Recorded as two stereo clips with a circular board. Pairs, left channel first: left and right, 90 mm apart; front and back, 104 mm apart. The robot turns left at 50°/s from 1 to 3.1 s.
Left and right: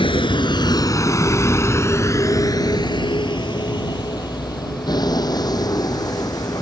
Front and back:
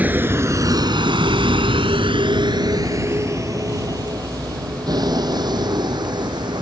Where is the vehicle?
105° left; by 6.6 s 135° left.